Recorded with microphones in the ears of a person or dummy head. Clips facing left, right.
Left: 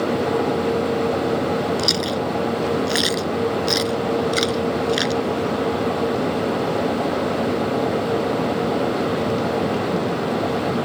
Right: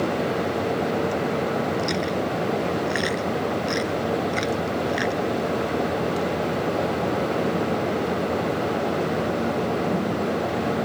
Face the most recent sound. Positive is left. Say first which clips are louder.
# left 2 dB
turn(degrees=50)  # may be behind; listen again after turning